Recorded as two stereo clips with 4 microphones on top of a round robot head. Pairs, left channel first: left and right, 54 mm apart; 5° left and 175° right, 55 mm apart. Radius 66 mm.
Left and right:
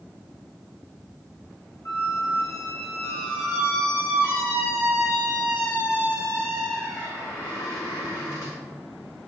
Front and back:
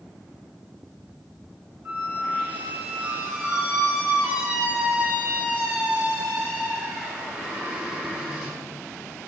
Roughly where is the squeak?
Behind left.